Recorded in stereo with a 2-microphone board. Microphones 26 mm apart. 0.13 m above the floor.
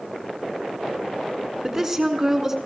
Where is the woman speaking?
20° right (ahead or behind), 1.4 m.